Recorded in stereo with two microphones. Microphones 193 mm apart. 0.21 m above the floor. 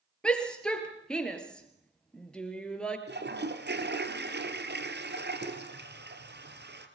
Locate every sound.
0.2 s a shout: 5° left (ahead or behind), 4.5 m
3.1 s a toilet flushing: 65° right (ahead or behind), 2.5 m